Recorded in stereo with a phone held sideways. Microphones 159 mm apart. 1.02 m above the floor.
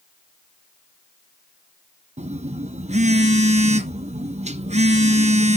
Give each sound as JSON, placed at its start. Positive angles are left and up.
{"t": 2.2, "sound": "a phone buzzing", "side_deg": -45, "distance_m": 0.7}